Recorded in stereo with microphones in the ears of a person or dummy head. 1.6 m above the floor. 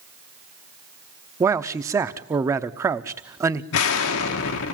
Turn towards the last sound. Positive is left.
turn(degrees=70)  # may be behind; listen again after turning